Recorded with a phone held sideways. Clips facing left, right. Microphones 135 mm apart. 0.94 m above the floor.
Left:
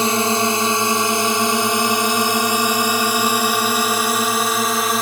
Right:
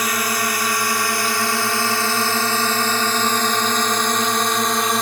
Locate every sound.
0.0 s a drone: 30° left (ahead or behind); by 5.0 s centre (ahead or behind)